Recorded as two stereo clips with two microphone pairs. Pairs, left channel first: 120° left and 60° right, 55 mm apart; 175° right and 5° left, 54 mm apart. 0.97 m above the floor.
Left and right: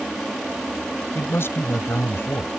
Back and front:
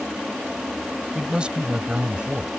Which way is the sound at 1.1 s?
80° left.